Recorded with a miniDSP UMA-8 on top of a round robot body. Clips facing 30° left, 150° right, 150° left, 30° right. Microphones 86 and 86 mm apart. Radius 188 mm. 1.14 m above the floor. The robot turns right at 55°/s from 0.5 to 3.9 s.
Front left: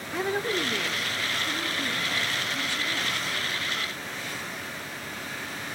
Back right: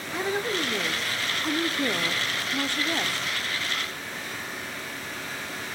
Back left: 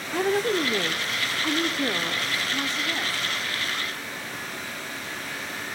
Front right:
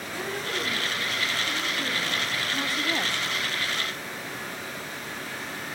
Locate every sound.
0.1 s a woman speaking: 120° left, 0.6 m; by 3.3 s 90° right, 0.6 m